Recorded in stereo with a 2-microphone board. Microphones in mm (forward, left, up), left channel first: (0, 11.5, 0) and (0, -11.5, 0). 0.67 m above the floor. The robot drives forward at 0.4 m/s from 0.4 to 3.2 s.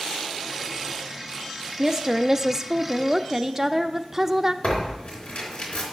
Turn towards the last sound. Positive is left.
turn(degrees=60)  # may be behind; listen again after turning